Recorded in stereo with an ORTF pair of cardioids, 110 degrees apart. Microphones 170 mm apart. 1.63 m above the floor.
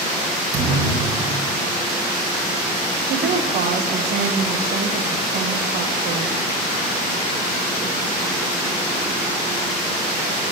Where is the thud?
50° right, 4.5 m.